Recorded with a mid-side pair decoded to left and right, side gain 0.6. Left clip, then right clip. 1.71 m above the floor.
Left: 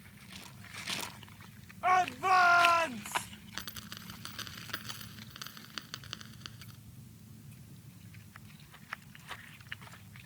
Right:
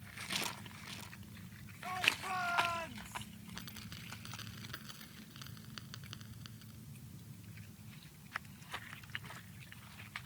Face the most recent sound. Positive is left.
turn(degrees=40)